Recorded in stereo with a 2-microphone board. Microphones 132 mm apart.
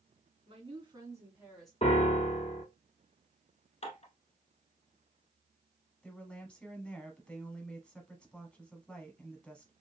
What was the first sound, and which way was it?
A woman speaking, 45° right (ahead or behind).